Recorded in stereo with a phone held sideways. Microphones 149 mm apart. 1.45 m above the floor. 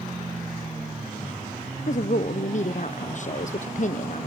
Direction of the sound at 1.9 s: 55° left (ahead or behind).